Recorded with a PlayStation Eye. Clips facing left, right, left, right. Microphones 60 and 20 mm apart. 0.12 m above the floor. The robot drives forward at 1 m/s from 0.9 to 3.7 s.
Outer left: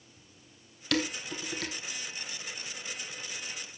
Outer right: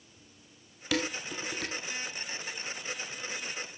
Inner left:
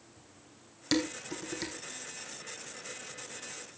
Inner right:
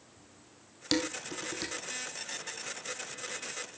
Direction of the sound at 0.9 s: 10° right (ahead or behind).